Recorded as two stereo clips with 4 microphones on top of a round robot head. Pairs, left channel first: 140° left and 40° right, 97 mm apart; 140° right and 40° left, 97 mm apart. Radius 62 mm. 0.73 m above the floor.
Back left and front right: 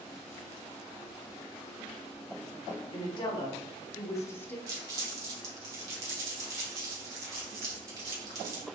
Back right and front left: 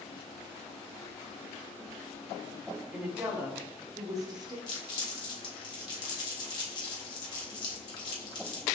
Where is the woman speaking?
120° left, 1.3 m; by 4.6 s 75° left, 1.1 m.